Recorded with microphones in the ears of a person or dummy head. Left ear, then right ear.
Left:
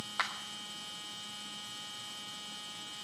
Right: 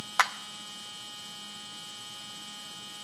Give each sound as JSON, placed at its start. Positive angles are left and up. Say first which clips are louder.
{"t": 0.2, "sound": "a clap", "louder": "right 9 dB", "side_deg": -35, "distance_m": 0.5}